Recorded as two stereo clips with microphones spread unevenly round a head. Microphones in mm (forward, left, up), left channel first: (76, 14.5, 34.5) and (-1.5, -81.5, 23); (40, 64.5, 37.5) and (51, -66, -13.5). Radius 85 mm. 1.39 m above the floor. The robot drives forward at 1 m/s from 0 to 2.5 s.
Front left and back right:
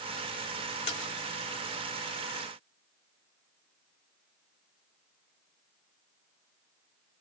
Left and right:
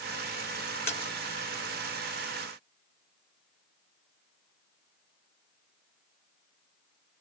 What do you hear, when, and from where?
0.9 s a splash: 20° left, 3 m; by 1.1 s 25° left, 3 m